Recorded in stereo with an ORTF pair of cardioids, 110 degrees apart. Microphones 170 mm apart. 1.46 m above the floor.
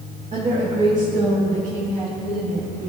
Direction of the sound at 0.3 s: 40° right.